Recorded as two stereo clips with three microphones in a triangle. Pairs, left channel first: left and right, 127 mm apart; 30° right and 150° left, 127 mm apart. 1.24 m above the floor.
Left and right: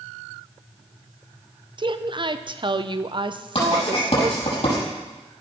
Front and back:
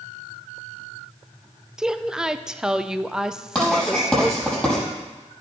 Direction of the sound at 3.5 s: 60° left.